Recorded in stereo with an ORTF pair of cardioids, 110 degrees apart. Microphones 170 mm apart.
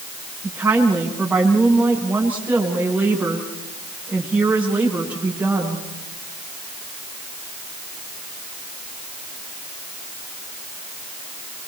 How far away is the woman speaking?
About 9.5 m.